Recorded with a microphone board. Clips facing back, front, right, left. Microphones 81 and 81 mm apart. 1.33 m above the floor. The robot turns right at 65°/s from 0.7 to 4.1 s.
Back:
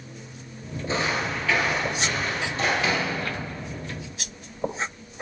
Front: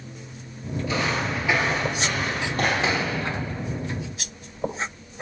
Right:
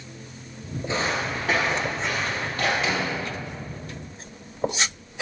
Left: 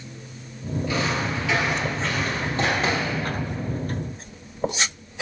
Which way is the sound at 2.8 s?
55° left.